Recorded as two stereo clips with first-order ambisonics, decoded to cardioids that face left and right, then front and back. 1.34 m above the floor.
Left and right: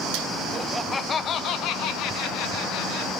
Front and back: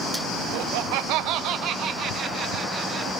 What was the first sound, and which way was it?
Laughter, 160° right.